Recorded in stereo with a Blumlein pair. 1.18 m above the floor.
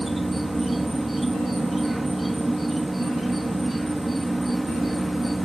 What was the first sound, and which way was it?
An insect, 5° right.